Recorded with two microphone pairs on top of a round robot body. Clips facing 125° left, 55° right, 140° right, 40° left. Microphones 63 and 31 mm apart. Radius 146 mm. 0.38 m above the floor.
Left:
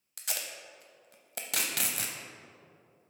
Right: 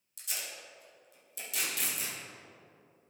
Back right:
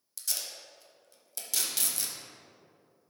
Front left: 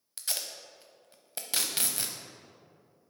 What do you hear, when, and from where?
0.2 s tape being pulled: 95° left, 0.7 m